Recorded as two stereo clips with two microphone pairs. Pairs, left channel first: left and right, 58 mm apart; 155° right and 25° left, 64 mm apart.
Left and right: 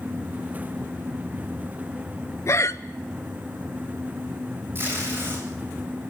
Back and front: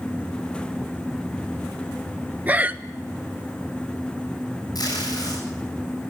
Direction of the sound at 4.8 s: 140° right.